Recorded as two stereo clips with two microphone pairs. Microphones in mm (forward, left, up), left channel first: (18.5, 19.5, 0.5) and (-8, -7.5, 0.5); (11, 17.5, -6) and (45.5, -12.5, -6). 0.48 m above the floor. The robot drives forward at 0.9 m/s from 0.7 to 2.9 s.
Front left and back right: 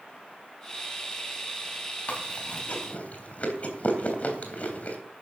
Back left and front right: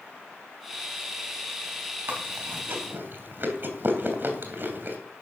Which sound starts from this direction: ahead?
Chewing, at 2.1 s.